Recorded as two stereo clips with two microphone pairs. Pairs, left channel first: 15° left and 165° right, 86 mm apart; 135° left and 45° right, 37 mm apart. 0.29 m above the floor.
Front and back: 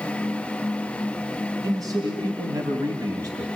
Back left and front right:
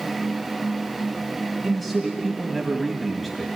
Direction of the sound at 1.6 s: 140° right.